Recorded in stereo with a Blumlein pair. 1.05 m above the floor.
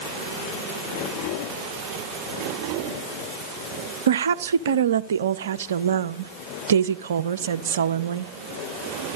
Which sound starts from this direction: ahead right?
A woman speaking, at 4.1 s.